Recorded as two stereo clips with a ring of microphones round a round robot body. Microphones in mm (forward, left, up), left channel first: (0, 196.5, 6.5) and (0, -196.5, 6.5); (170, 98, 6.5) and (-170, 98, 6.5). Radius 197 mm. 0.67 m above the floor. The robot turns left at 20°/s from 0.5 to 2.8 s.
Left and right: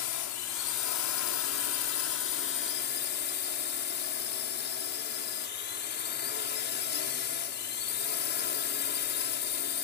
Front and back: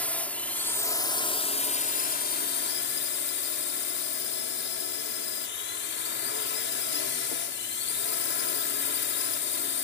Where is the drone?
85° left; by 9.8 s 40° left.